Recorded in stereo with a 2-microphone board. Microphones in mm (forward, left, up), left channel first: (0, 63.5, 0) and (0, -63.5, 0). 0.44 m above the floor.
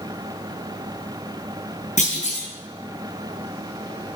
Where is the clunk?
70° left (ahead or behind), 4.5 m.